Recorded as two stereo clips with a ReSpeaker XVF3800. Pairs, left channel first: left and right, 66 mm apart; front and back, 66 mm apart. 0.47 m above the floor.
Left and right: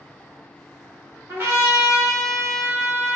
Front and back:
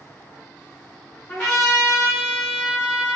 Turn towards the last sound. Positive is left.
turn(degrees=-65)